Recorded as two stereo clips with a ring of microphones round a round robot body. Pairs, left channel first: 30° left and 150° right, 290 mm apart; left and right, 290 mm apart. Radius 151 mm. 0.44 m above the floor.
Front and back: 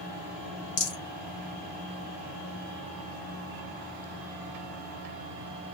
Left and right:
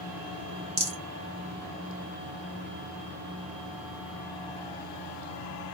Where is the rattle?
25° right, 1.7 m.